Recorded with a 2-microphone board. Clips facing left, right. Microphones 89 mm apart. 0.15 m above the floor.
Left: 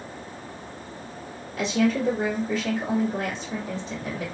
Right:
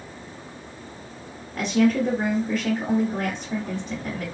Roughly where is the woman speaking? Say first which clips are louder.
Right 3 dB; right.